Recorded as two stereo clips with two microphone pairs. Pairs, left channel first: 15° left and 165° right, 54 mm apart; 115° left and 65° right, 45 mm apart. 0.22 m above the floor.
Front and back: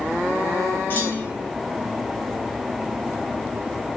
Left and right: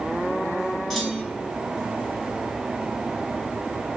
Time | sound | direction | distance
0.9 | a clunk | 35° left | 1.6 m